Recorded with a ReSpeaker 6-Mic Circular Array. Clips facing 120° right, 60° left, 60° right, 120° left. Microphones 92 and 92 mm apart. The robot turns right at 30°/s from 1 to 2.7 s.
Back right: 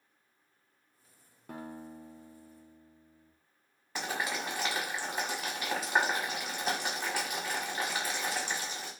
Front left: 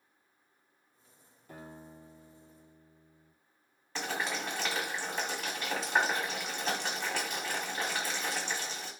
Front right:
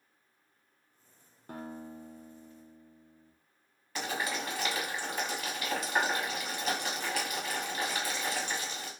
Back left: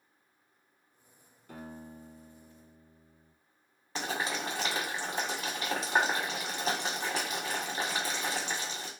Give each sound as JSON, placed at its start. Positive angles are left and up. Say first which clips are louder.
{"t": 1.5, "sound": "a guitar", "louder": "back right 5 dB, front right 3 dB", "azimuth_deg": -100, "distance_m": 0.5}
{"t": 4.0, "sound": "boiling", "louder": "even, back left 1 dB", "azimuth_deg": 165, "distance_m": 1.1}